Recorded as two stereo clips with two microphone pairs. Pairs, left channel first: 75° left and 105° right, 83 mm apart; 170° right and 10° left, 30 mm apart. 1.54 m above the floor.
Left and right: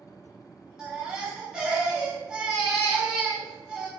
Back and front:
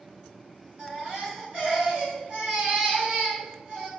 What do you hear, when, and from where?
0.8 s a baby crying: 25° right, 1.2 m